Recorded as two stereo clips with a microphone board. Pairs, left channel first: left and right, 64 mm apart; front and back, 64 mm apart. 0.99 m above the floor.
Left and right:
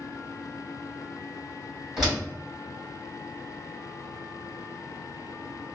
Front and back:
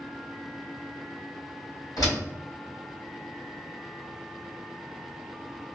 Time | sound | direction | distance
2.0 | a door slam | 10° right | 1.9 m